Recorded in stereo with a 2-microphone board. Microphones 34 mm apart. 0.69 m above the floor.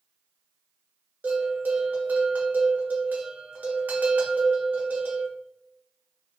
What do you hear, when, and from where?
1.2 s a bell: 60° right (ahead or behind), 1.2 m